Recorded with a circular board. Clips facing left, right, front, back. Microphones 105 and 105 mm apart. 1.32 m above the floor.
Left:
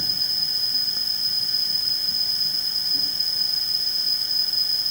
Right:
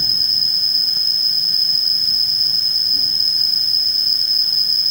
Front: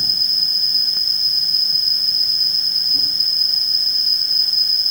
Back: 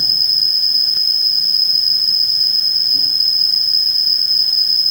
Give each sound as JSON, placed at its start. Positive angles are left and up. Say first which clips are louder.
{"t": 0.0, "sound": "an insect", "louder": "right 4 dB, back 2 dB", "azimuth_deg": -25}